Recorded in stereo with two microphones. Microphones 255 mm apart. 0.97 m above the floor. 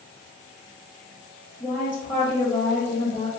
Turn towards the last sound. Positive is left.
turn(degrees=10)  # may be behind; listen again after turning